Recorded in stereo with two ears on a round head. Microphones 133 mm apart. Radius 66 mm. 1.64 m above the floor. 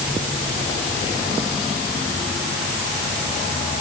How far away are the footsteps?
No footsteps in this recording.